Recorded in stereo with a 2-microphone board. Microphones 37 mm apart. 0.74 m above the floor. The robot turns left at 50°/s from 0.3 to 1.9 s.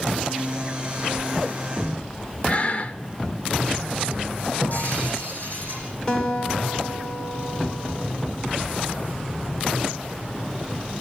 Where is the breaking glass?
50° left (ahead or behind), 9 m.